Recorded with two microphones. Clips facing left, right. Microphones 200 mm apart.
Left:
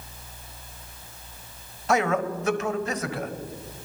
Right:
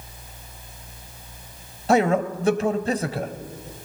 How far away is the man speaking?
About 1.2 m.